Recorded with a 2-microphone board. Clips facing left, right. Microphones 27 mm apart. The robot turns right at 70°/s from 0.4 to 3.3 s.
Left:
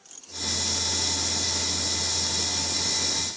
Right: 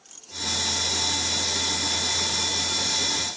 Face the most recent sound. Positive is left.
No sound to turn to.